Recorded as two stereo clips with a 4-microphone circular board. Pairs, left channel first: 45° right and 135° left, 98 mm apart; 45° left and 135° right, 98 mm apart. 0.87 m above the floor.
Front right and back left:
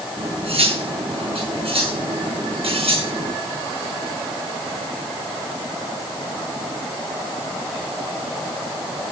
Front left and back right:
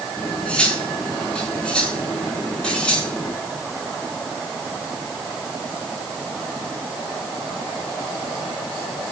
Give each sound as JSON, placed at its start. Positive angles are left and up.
{"t": 0.2, "sound": "cutlery clinking", "azimuth_deg": 125, "distance_m": 5.0}